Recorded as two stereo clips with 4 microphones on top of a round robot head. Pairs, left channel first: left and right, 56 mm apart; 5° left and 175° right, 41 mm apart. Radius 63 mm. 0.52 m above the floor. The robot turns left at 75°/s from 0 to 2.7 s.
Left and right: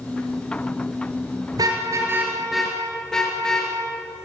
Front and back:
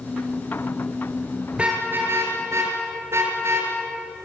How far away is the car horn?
About 5.5 m.